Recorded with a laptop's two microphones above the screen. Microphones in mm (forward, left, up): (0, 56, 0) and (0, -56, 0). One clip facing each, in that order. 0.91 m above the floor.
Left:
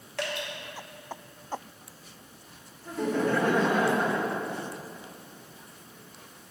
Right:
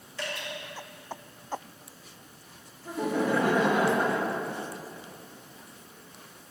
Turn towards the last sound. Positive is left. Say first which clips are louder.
# even
turn(degrees=-10)  # may be behind; listen again after turning